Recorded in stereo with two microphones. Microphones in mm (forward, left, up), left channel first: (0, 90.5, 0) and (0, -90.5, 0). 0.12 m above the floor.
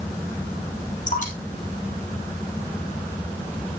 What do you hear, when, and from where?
1.1 s dripping: 45° left (ahead or behind), 3 m